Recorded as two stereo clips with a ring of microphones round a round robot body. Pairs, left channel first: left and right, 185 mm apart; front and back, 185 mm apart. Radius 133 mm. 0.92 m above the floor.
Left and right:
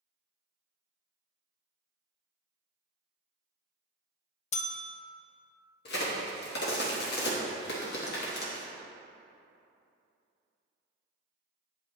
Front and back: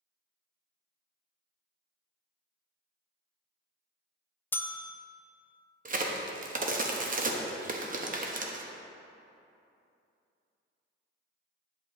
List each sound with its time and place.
4.5 s a bell: 75° left, 0.5 m
5.8 s a crack: 135° left, 1.0 m